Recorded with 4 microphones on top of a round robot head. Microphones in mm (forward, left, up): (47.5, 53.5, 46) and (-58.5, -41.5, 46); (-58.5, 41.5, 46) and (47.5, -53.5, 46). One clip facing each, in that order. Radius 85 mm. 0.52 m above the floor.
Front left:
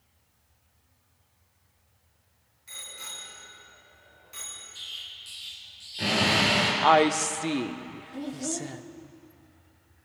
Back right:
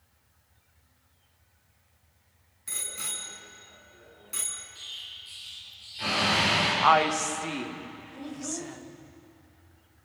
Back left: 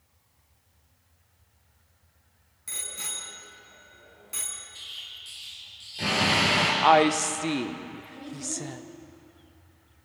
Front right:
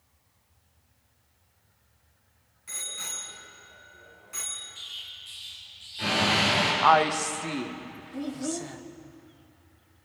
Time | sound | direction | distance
2.7 | a bicycle bell | 170° right | 4.5 m
4.8 | an explosion | 80° left | 5.5 m
6.8 | a woman speaking | 80° left | 1.2 m
8.1 | a child speaking | 5° right | 1.9 m